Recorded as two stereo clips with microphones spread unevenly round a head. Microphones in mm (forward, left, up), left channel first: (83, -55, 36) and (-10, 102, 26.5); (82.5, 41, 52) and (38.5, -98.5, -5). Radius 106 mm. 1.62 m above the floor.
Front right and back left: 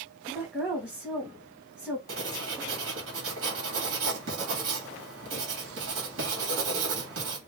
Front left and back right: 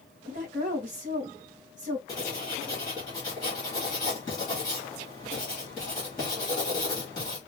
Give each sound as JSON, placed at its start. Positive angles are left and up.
{"t": 0.3, "sound": "a woman speaking", "azimuth_deg": -155, "distance_m": 1.9}
{"t": 2.1, "sound": "writing", "azimuth_deg": 130, "distance_m": 1.9}